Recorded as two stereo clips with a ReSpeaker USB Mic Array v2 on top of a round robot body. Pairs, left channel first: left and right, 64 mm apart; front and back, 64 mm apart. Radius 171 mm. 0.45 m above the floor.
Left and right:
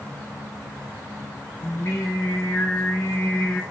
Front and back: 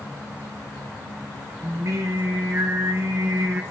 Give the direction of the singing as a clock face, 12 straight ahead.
7 o'clock.